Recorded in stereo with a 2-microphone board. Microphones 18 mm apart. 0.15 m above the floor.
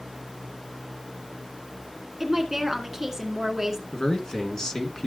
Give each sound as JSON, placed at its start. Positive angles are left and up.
{"t": 2.2, "sound": "a woman speaking", "side_deg": -25, "distance_m": 1.7}
{"t": 3.9, "sound": "a man speaking", "side_deg": 40, "distance_m": 1.8}